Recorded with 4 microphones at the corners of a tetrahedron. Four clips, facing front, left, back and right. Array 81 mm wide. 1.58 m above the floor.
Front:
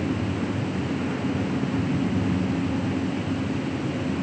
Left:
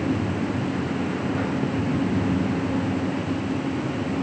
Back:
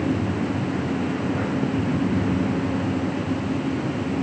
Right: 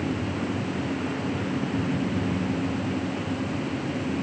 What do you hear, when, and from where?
Only background noise.